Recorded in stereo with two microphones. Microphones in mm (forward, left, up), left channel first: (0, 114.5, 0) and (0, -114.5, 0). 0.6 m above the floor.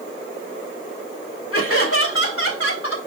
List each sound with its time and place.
1.5 s laughter: 70° left (ahead or behind), 2.5 m